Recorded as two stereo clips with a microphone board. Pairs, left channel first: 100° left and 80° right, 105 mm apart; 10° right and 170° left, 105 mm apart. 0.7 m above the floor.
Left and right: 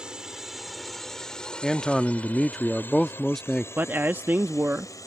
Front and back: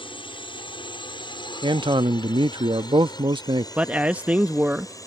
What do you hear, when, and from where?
0.0 s a drone: straight ahead; by 5.1 s 45° left
1.6 s a man speaking: 175° right
3.8 s a man speaking: 125° right